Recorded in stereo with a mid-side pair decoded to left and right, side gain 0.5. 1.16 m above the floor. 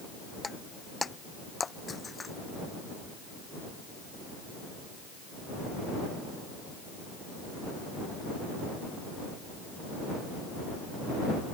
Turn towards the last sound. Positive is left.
turn(degrees=25)